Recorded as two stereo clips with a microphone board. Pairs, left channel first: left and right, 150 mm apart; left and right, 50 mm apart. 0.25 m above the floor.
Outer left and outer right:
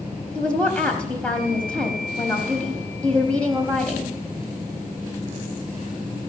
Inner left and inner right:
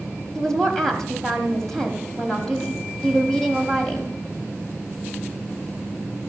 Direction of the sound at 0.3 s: 10° left (ahead or behind).